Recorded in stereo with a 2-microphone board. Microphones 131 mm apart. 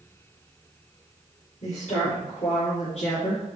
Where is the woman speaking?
65° left (ahead or behind), 3.5 m; by 3.5 s 55° left (ahead or behind), 3 m.